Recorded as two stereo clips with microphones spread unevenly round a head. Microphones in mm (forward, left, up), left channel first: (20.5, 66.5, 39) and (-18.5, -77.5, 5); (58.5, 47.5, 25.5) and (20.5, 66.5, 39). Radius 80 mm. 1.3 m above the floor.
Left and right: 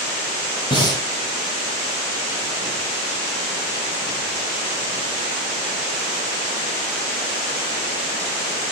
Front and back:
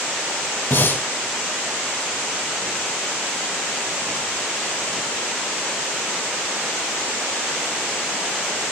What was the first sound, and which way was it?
Breathing, 15° left.